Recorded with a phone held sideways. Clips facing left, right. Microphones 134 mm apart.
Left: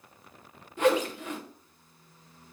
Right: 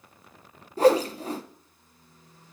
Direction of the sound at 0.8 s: 35° right (ahead or behind).